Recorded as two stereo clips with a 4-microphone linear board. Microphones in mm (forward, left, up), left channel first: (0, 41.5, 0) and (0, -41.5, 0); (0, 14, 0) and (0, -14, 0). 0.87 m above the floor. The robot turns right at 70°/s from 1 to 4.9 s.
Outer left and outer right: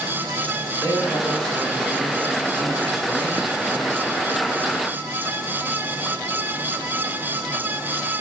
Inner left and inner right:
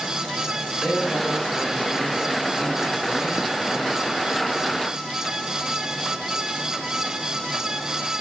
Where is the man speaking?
160° left, 4 m; by 4.1 s 15° left, 4 m.